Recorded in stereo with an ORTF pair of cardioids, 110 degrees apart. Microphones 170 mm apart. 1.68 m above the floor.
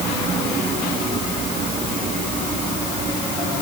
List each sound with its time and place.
Only background noise.